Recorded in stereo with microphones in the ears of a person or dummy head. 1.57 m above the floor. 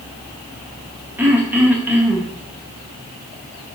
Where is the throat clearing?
15° right (ahead or behind), 0.7 m.